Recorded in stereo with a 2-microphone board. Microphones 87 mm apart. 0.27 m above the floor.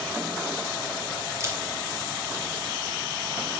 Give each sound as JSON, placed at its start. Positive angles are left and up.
{"t": 1.4, "sound": "a camera shutter", "side_deg": -35, "distance_m": 4.0}